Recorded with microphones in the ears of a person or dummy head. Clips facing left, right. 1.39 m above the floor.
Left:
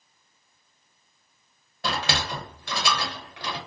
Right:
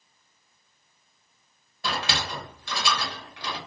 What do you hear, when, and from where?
1.8 s a sliding door: 50° left (ahead or behind), 0.9 m